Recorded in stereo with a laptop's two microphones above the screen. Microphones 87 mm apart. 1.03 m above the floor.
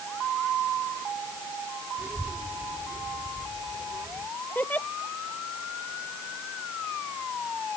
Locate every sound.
2.0 s a child speaking: 15° right (ahead or behind); by 4.3 s 45° right (ahead or behind)
4.5 s a giggle: 20° left (ahead or behind)